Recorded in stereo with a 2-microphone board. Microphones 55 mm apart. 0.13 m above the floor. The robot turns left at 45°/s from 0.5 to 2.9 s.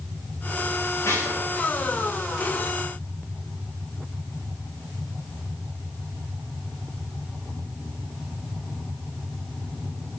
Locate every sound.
1.0 s dishes clattering: 55° left (ahead or behind), 9.5 m; by 1.4 s 70° left (ahead or behind), 9.5 m